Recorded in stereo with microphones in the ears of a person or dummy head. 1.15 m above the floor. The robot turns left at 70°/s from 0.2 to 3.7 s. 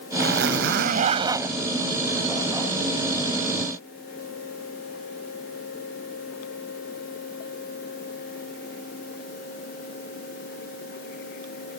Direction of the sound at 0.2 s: 80° right.